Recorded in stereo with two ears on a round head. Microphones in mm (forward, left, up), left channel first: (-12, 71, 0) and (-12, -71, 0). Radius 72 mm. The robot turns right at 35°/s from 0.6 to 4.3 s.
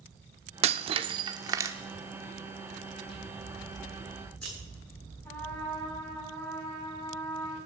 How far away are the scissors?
About 8 m.